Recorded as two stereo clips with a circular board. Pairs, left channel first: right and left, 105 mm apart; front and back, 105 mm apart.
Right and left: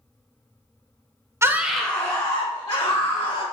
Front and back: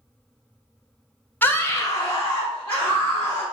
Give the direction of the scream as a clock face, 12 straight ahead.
10 o'clock.